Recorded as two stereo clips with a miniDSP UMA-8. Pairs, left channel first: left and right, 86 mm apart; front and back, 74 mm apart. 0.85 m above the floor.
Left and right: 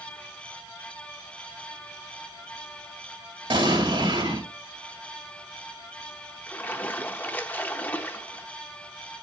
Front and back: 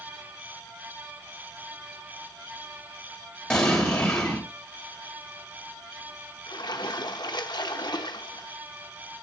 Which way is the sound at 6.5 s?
20° left.